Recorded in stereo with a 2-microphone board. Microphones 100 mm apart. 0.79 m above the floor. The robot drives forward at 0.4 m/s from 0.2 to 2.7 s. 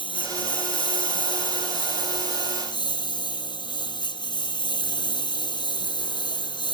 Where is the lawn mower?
60° left (ahead or behind); by 6.7 s 55° left (ahead or behind).